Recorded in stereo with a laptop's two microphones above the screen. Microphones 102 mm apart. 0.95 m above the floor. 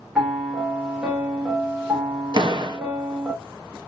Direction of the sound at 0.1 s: 10° right (ahead or behind).